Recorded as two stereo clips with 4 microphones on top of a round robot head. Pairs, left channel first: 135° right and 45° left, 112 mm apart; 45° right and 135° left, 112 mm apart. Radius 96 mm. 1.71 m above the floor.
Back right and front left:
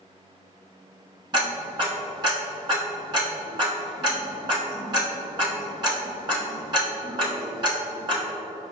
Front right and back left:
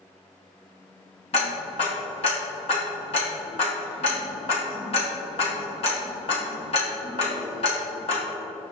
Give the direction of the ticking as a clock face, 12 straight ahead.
12 o'clock.